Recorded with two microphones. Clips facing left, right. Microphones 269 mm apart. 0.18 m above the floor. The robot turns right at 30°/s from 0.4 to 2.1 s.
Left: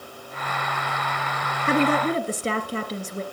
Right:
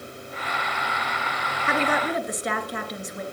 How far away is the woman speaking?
About 2 m.